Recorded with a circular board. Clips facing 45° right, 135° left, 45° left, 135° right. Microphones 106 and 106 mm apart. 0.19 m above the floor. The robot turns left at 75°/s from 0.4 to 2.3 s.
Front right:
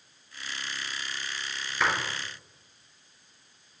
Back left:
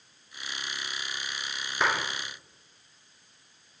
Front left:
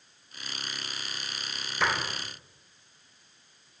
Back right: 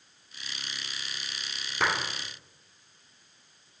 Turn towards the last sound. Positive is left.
turn(degrees=165)